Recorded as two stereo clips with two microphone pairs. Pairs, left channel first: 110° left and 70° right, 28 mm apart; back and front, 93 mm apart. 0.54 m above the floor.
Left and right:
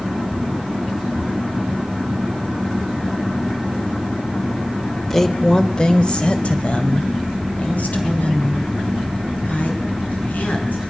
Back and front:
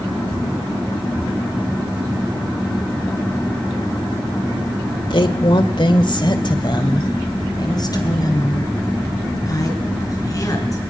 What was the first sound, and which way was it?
A woman speaking, 175° right.